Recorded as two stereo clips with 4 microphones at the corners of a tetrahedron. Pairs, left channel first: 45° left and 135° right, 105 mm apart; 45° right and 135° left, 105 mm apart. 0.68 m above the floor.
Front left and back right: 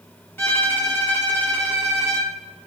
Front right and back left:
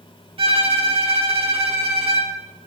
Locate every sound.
0.4 s a violin: 110° left, 1.5 m